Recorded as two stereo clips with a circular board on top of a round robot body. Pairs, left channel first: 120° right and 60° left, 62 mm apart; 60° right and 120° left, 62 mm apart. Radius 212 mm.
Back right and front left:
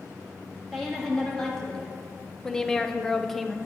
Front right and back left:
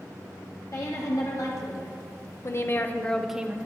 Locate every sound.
0.7 s a woman speaking: 40° right, 2.5 m; by 3.6 s 155° left, 0.9 m